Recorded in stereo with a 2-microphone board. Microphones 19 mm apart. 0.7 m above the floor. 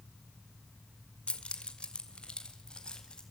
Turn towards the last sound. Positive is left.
turn(degrees=45)  # may be behind; listen again after turning